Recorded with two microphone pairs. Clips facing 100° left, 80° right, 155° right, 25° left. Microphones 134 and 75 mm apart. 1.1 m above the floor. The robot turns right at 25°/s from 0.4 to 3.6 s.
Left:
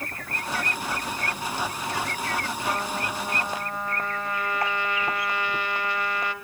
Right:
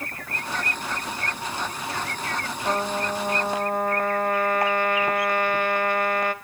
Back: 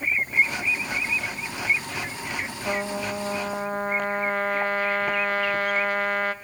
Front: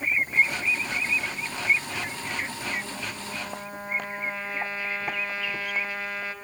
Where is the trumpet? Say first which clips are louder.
Right 6 dB, back 6 dB; 140° right, 1.9 m; by 6.3 s 120° right, 1.9 m.